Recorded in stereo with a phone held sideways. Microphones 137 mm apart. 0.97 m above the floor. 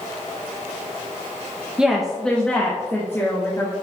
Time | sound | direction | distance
1.8 | a woman speaking | 5° right (ahead or behind) | 0.8 m